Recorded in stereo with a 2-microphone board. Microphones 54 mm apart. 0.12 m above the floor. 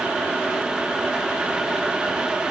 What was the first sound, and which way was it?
Only background noise.